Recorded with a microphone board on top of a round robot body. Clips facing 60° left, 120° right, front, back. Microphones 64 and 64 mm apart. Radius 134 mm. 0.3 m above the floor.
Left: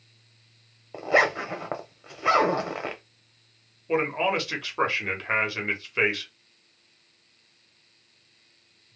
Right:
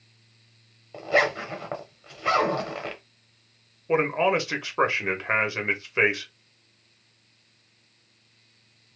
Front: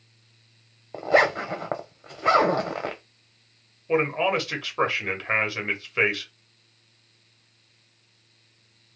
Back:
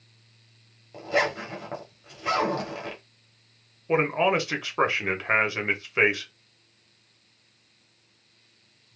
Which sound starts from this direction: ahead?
A zipper, at 0.9 s.